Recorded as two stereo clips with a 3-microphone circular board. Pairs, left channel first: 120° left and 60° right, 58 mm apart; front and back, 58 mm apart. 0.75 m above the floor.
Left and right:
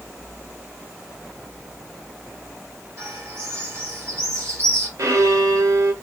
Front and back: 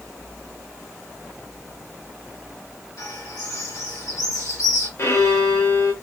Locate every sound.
3.0 s a bird: 20° right, 2.0 m
5.0 s a violin: 35° right, 1.0 m